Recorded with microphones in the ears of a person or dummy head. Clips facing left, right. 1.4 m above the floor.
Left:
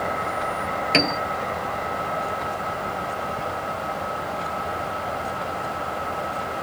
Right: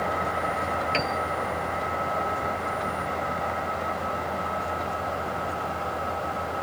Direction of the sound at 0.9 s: 60° left (ahead or behind).